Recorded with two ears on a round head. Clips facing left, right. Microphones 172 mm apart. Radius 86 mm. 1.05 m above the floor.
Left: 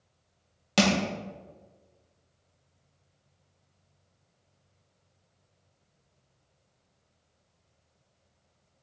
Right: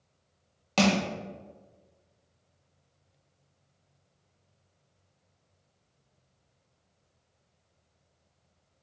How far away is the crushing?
About 0.7 m.